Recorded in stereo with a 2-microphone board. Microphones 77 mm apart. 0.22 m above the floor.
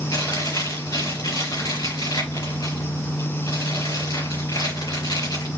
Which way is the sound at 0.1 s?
60° left (ahead or behind).